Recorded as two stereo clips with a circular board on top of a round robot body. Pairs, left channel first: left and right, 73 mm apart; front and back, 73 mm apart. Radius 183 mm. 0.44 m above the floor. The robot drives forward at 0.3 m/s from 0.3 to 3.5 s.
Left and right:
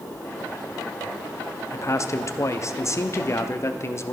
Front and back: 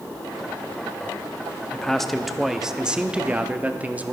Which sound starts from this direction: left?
A man speaking, at 1.7 s.